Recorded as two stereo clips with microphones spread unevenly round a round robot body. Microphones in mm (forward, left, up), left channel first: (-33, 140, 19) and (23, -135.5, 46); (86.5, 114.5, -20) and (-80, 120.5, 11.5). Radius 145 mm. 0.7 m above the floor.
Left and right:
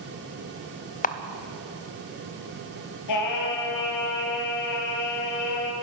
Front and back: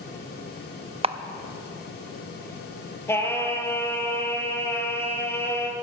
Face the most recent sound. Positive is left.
turn(degrees=75)